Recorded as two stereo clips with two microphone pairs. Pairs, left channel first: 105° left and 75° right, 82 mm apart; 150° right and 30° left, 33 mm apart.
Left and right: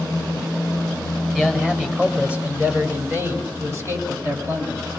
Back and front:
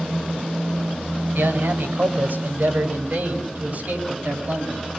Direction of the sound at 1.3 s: 5° left.